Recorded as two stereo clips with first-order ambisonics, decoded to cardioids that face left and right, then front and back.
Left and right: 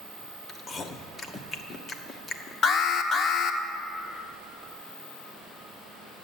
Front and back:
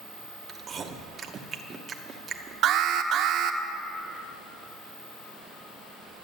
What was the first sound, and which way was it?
Chewing, 140° left.